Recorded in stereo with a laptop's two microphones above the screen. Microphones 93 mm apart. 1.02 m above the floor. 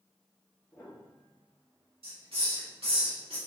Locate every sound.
0.7 s a piano: 25° left (ahead or behind), 1.7 m
2.0 s a hiss: 90° right, 1.8 m